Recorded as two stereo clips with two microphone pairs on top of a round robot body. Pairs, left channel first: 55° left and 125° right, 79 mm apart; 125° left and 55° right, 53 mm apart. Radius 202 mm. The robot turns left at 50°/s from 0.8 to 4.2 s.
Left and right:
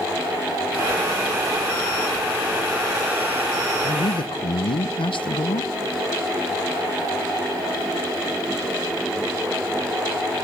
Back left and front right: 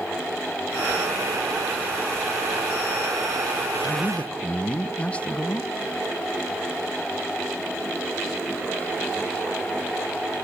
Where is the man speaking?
80° left, 1.1 m; by 5.7 s 60° left, 1.1 m.